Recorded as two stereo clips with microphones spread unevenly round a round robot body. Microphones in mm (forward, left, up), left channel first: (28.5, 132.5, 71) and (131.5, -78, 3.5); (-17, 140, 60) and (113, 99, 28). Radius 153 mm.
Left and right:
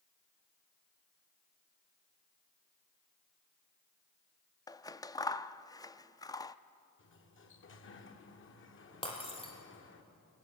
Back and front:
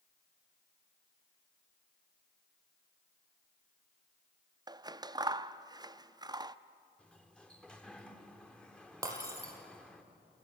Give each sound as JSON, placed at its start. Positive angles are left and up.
{"t": 4.7, "sound": "scissors", "azimuth_deg": 30, "distance_m": 0.7}
{"t": 7.0, "sound": "a sliding door", "azimuth_deg": 75, "distance_m": 1.9}
{"t": 9.0, "sound": "breaking glass", "azimuth_deg": 50, "distance_m": 5.5}